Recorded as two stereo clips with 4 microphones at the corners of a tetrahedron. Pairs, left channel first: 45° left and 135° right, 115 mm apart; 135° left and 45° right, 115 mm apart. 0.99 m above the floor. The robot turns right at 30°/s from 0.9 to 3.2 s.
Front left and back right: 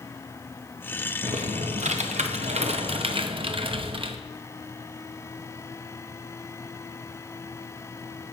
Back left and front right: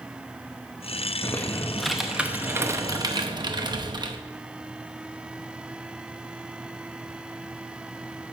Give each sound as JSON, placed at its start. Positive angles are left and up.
{"t": 1.2, "sound": "typing on a keyboard", "azimuth_deg": -155, "distance_m": 0.7}